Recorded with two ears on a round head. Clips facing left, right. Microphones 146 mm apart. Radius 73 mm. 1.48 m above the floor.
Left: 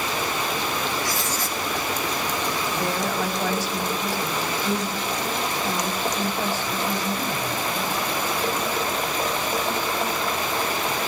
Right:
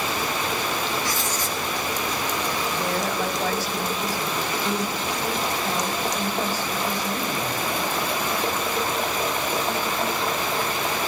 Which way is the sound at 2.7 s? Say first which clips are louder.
Left 1 dB; 10° right (ahead or behind).